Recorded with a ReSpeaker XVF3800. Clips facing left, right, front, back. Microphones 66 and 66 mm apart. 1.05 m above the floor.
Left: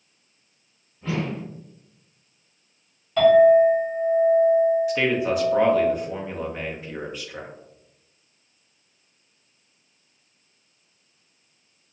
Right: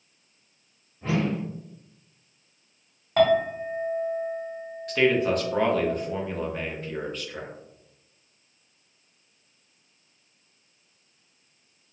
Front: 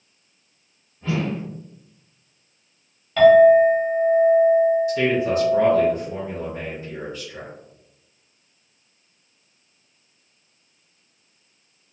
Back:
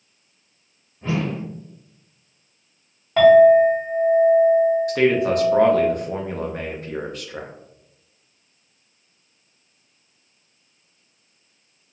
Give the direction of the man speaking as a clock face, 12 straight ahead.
6 o'clock.